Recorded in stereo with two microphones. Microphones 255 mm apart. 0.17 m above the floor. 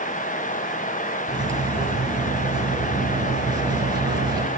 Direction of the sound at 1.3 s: 15° right (ahead or behind).